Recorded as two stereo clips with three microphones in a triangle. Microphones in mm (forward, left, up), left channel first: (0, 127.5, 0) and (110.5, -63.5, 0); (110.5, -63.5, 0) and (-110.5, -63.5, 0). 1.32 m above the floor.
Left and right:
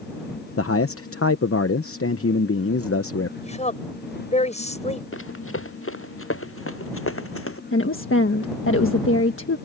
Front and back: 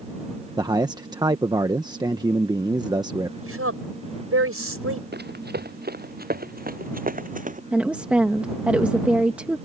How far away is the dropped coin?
No dropped coin in this recording.